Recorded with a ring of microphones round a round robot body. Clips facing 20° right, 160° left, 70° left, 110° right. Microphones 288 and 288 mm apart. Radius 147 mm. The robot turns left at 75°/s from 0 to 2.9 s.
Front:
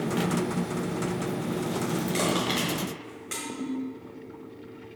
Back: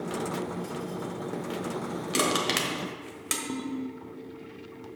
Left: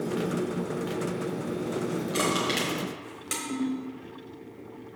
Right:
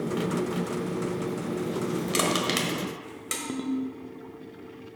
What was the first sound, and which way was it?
Crushing, 140° right.